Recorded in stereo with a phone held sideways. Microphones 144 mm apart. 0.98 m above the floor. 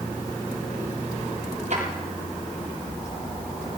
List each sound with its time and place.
1.7 s a drawer: 65° right (ahead or behind), 8.5 m